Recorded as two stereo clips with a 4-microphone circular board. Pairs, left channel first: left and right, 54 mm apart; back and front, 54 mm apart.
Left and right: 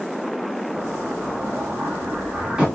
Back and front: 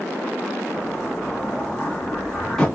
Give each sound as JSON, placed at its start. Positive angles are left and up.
{"t": 0.7, "sound": "an explosion", "azimuth_deg": -120, "distance_m": 1.0}